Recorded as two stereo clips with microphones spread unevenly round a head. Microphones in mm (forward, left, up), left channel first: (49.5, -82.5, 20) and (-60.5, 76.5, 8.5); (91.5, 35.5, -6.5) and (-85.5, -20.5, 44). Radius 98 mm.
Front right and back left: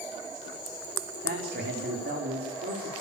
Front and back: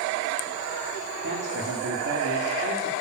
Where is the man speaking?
165° left, 4.5 m.